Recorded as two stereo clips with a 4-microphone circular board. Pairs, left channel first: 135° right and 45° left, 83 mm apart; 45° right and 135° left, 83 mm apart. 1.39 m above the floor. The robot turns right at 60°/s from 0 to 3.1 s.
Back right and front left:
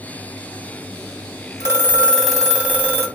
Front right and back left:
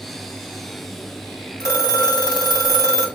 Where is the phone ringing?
90° right, 1.0 m; by 3.1 s straight ahead, 1.0 m.